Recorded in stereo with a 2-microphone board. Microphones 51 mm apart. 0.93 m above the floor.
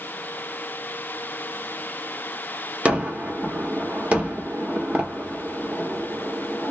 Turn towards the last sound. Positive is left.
turn(degrees=-25)  # may be behind; listen again after turning